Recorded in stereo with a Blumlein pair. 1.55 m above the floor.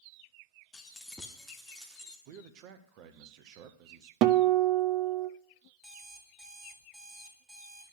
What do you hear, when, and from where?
0.7 s keys jangling: 15° left, 1.6 m; by 2.2 s 5° right, 2.5 m
2.3 s a man speaking: 40° right, 1.3 m
4.2 s a guitar: 40° right, 0.5 m
5.8 s an alarm clock: 5° right, 2.5 m